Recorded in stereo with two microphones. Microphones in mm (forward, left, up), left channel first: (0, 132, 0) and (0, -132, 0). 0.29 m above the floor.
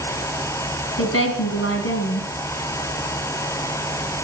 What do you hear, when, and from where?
1.0 s a woman speaking: 60° left (ahead or behind), 2.5 m